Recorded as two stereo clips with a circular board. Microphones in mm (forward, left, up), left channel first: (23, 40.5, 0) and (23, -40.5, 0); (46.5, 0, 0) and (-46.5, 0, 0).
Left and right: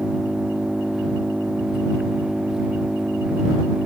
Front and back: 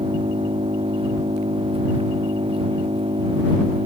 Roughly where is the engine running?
Behind.